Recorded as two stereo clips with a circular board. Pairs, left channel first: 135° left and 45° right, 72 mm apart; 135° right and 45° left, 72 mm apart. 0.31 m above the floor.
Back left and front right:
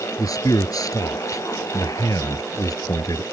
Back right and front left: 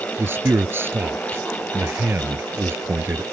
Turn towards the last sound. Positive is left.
turn(degrees=105)